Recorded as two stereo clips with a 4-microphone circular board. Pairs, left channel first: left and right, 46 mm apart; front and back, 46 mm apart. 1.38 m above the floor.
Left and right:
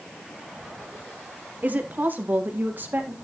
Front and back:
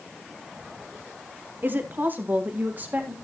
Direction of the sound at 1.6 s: 140° right.